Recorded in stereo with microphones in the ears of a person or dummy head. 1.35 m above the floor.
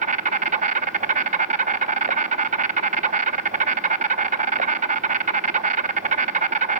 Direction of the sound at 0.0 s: 35° right (ahead or behind).